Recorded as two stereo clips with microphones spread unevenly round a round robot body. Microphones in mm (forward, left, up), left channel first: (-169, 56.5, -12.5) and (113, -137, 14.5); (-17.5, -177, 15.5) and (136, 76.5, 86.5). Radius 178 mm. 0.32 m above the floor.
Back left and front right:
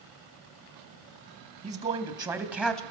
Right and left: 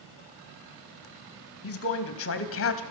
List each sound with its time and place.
1.6 s a man speaking: 105° right, 3 m; by 2.8 s 130° right, 2.5 m